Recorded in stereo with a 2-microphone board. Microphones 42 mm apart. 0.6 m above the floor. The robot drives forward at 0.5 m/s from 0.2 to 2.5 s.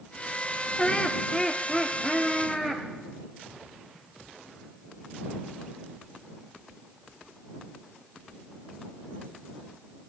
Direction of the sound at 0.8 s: 20° left (ahead or behind).